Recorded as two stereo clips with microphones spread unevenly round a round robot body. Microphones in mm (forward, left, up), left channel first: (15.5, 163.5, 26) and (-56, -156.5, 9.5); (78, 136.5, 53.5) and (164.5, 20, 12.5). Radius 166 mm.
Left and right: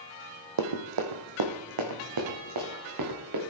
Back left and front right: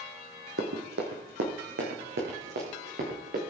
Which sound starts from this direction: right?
Running footsteps, at 0.6 s.